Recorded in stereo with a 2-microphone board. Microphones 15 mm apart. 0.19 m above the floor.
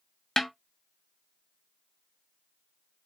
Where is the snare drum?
25° left (ahead or behind), 0.7 m.